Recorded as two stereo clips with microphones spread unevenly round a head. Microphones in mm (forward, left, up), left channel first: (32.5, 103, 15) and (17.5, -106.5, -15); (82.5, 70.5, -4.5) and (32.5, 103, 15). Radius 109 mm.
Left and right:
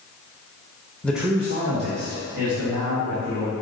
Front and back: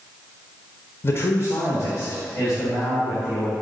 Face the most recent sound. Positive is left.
turn(degrees=-80)